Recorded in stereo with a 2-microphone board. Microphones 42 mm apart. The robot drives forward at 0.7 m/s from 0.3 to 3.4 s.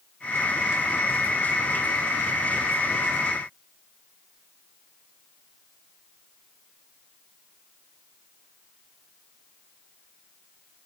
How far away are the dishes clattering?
I don't hear dishes clattering.